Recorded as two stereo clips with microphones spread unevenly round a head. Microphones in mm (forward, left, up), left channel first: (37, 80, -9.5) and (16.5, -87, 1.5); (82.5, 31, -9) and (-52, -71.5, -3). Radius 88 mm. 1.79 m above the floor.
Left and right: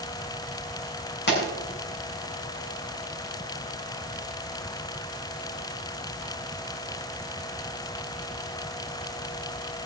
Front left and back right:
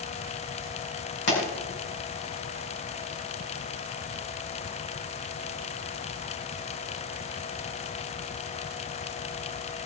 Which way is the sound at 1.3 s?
60° left.